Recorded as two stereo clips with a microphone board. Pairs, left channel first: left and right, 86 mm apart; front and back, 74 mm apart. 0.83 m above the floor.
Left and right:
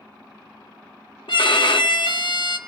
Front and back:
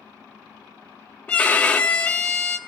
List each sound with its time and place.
1.3 s a violin: 75° left, 0.6 m